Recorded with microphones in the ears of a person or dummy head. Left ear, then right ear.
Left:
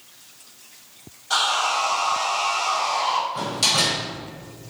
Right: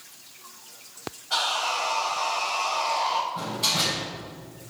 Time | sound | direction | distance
1.3 | sawing | 80° left | 3 m
3.4 | a door slam | 70° left (ahead or behind) | 4 m